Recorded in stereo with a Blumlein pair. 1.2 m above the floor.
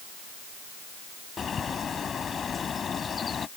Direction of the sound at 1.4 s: 20° left.